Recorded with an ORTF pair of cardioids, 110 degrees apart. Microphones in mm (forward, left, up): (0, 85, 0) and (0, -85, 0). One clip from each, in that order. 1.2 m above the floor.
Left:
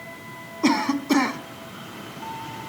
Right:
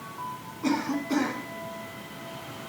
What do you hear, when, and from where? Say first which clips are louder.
0.6 s a cough: left 7 dB; 60° left, 1.0 m